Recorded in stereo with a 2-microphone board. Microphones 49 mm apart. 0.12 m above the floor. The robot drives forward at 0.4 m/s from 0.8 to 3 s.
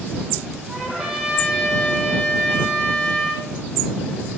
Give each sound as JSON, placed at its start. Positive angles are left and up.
{"t": 0.7, "sound": "a trumpet", "side_deg": -10, "distance_m": 1.6}